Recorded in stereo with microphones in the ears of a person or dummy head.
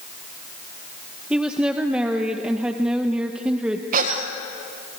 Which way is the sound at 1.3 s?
5° right (ahead or behind).